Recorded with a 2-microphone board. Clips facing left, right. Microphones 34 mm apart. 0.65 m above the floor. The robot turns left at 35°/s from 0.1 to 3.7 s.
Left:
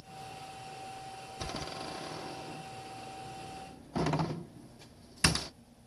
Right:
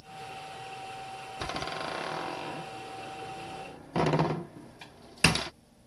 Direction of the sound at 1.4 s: 35° right (ahead or behind).